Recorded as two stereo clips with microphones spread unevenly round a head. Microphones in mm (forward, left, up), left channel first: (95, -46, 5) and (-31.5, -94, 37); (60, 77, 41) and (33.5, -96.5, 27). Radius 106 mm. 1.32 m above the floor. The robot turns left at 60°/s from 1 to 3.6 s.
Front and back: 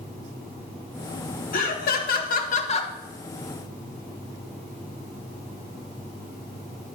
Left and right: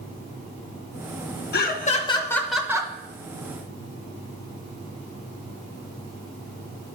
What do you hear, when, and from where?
1.5 s laughter: 50° left, 1.2 m; by 2.9 s 35° right, 1.2 m